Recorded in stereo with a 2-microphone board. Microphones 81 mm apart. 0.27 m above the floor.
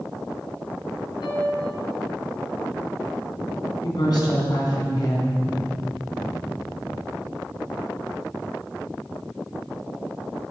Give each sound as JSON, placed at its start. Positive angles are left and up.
{"t": 1.2, "sound": "a piano", "side_deg": 65, "distance_m": 2.5}
{"t": 3.8, "sound": "a woman speaking", "side_deg": 60, "distance_m": 3.0}